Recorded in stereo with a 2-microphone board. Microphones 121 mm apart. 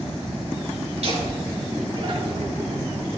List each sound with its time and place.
1.0 s laughter: 70° right (ahead or behind), 4 m; by 2.7 s 50° right (ahead or behind), 3 m